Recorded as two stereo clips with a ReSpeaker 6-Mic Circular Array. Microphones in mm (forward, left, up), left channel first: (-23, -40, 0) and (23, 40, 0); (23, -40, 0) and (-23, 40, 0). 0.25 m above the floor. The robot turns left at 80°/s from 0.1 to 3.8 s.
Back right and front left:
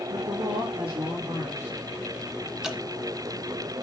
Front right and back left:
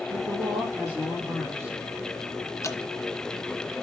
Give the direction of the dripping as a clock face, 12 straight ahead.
1 o'clock.